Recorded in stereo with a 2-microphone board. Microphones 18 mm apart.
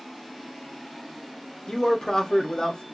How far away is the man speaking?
About 0.9 m.